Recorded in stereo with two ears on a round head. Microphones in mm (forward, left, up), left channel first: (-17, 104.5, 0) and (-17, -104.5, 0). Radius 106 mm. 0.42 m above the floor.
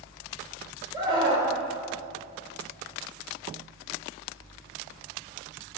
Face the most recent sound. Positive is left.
turn(degrees=-20)  # may be behind; listen again after turning